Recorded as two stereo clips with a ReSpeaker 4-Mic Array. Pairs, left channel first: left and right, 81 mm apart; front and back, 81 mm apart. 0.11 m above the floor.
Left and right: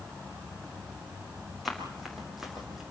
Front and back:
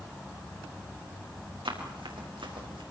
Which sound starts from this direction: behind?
Running footsteps, at 1.6 s.